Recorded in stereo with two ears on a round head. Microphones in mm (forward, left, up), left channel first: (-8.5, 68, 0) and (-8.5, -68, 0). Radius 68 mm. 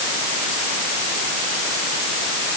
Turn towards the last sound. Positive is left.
No sound to turn to.